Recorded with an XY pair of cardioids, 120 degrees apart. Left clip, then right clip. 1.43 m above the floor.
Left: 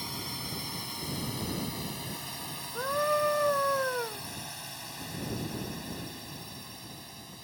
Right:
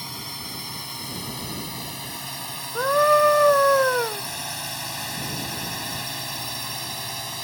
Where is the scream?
55° right.